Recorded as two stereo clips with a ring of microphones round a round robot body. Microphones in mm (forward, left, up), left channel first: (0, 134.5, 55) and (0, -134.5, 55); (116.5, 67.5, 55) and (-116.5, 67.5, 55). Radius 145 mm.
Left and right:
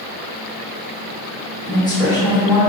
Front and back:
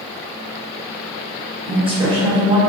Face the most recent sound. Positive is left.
turn(degrees=145)